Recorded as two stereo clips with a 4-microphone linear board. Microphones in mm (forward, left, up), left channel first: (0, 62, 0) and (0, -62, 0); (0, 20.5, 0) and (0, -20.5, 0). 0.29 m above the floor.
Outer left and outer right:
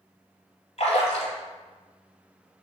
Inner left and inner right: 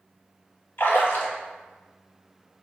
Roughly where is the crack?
No crack in this recording.